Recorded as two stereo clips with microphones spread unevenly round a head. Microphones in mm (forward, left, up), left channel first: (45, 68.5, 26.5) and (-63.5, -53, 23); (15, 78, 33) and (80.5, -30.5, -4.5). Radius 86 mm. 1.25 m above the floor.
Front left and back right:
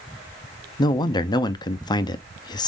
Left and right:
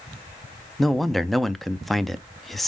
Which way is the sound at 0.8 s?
5° left.